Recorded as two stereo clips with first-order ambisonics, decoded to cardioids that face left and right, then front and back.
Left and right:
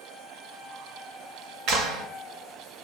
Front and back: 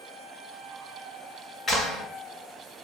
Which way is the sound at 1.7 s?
75° right.